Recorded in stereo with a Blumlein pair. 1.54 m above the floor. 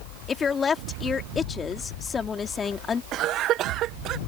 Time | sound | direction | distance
0.3 | a woman speaking | 20° left | ?
3.1 | a cough | 35° right | ?